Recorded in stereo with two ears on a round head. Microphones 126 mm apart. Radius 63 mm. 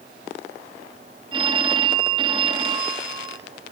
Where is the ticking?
No ticking in this recording.